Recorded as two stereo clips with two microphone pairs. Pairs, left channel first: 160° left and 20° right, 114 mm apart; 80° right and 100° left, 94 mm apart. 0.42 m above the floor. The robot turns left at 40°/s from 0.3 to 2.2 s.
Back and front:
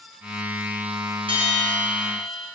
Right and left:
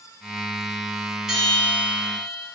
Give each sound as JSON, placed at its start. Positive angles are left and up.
{"t": 1.3, "sound": "a bell", "azimuth_deg": 15, "distance_m": 2.5}